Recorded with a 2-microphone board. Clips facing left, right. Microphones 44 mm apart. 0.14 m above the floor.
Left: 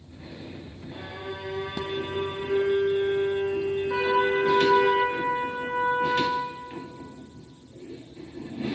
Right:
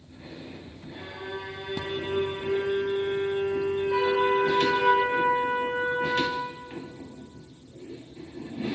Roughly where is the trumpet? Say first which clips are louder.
Even; left.